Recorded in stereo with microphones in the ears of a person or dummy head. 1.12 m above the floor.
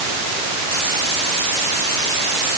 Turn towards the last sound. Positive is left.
No sound to turn to.